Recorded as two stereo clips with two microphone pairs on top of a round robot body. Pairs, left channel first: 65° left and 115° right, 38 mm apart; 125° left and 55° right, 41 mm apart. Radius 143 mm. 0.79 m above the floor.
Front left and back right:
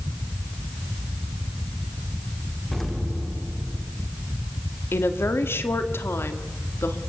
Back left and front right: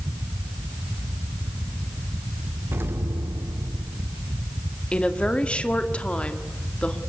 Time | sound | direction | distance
2.7 | an explosion | 25° right | 1.4 m
4.9 | a woman speaking | 60° left | 2 m